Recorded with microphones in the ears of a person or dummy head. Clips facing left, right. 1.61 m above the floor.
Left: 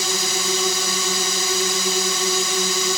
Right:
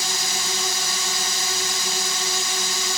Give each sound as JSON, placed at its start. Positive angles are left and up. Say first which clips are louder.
{"t": 0.0, "sound": "a drone", "louder": "left 6 dB", "side_deg": 70}